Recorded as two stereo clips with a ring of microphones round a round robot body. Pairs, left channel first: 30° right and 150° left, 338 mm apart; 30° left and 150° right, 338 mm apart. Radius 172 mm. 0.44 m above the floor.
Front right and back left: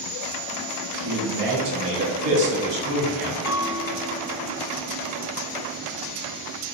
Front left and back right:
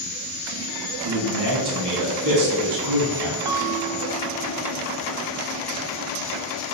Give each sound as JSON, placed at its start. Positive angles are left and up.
{"t": 1.0, "sound": "a man speaking", "azimuth_deg": 165, "distance_m": 3.5}
{"t": 3.5, "sound": "a bell", "azimuth_deg": -175, "distance_m": 0.9}